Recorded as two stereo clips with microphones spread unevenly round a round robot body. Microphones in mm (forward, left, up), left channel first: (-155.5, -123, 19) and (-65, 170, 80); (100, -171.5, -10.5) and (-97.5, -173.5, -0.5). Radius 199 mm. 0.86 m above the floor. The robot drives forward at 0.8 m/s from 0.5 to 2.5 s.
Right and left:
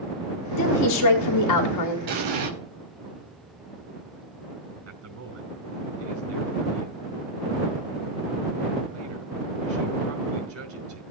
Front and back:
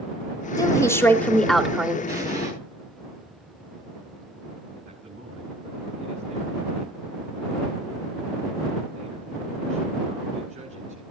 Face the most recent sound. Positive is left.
turn(degrees=115)